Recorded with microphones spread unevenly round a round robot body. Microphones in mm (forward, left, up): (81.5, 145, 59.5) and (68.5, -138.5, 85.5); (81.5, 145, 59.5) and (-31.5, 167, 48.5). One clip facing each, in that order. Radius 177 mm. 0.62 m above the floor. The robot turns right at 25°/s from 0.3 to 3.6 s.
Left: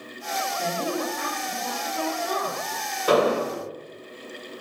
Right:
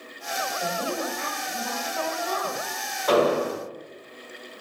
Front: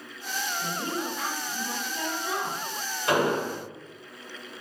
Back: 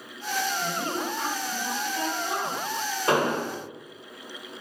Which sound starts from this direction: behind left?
An explosion, at 3.1 s.